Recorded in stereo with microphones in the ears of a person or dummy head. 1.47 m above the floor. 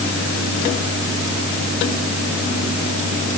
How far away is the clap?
No clap in this recording.